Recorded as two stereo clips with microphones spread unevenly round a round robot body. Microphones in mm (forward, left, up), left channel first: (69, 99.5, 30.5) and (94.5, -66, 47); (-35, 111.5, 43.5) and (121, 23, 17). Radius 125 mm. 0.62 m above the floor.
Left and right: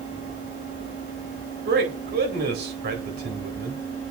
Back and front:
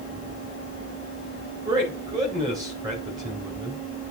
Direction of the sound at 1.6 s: 95° right.